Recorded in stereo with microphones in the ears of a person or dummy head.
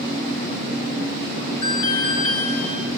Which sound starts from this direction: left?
An alarm, at 1.6 s.